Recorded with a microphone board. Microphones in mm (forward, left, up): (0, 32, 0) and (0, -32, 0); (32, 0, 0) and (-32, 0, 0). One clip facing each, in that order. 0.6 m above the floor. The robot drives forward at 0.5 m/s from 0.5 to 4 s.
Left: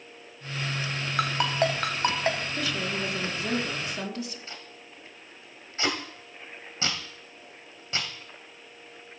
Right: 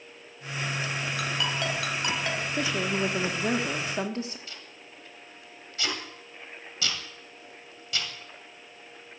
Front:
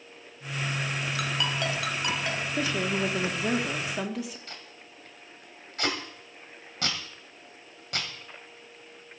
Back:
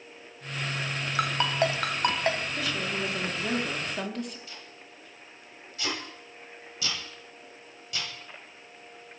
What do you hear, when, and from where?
1.2 s a ringtone: 130° left, 1.6 m; by 2.4 s 140° left, 2 m
2.6 s a woman speaking: 40° right, 1.5 m; by 4.4 s 80° right, 1.3 m
4.5 s tape being pulled: 35° left, 2.5 m